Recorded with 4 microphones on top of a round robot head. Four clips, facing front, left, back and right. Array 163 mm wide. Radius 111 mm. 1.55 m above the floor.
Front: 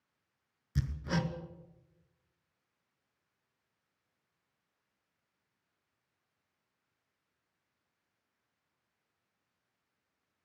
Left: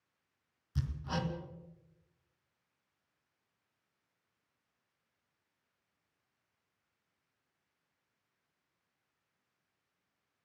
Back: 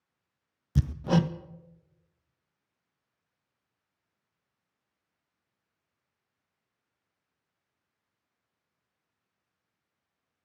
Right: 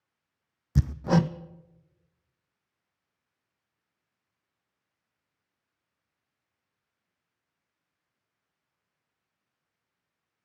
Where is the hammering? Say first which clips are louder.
Right 13 dB, back 9 dB; 120° right, 0.6 m.